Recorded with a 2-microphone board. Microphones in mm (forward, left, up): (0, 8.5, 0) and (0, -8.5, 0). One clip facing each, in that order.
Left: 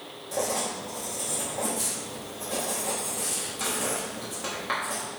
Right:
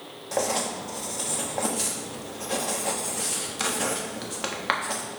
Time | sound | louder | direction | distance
0.3 | writing | right 2 dB | 40° right (ahead or behind) | 1.2 m